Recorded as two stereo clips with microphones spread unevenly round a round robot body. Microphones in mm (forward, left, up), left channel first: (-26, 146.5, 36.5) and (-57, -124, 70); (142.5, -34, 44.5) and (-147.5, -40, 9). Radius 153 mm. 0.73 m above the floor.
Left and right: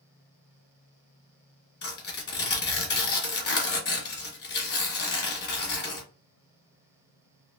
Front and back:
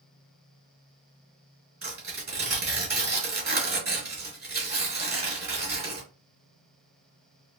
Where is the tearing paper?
120° left, 1.5 m.